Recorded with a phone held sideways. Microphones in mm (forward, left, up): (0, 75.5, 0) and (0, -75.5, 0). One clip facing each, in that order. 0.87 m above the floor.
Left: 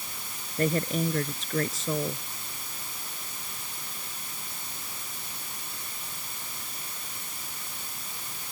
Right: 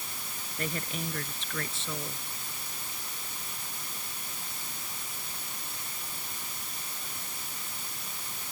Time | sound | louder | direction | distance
0.6 | a woman speaking | left 10 dB | 40° left (ahead or behind) | ?